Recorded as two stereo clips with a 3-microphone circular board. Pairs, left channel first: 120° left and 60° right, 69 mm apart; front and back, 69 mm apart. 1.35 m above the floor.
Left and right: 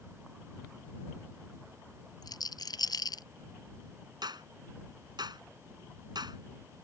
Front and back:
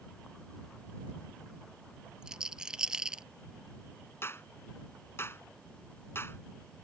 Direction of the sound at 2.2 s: 100° left.